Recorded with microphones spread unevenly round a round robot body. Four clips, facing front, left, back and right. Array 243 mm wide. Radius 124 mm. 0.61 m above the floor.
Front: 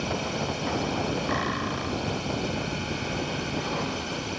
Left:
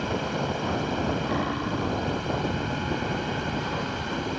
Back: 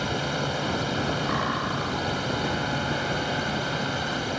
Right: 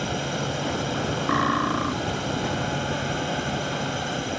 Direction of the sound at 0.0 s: 130° right.